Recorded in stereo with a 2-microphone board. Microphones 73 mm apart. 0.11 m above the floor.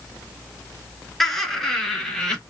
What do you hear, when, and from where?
1.2 s laughter: 5° left (ahead or behind), 1.1 m; by 2.4 s 10° left (ahead or behind), 1.4 m